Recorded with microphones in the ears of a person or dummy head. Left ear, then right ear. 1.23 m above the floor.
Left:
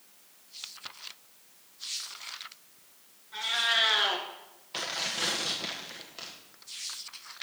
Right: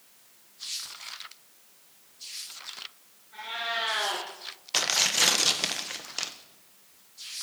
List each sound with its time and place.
3.3 s a cat meowing: 40° left (ahead or behind), 3 m
4.7 s tearing paper: 70° right (ahead or behind), 1.1 m